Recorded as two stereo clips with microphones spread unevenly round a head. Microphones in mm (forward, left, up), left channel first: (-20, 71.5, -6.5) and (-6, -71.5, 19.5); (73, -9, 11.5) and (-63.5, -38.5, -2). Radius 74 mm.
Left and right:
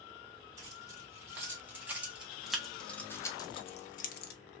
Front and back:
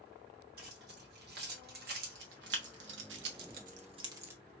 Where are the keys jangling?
155° right, 2 m; by 4.3 s 115° left, 0.7 m.